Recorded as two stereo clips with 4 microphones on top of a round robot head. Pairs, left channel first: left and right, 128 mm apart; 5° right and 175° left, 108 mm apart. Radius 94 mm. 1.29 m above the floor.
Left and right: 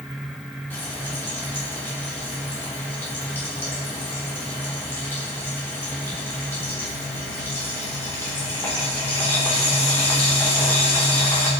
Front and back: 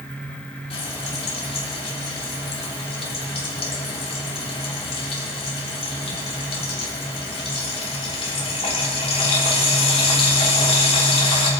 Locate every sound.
0.7 s frying: 15° left, 3 m